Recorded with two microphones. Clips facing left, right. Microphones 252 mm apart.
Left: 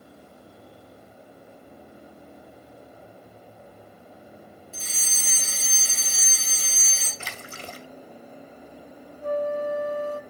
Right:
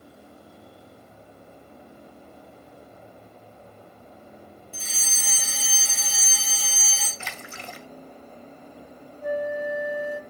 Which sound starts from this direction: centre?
A flute, at 9.2 s.